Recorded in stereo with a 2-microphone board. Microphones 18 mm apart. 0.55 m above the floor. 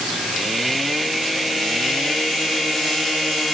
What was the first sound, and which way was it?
Only background noise.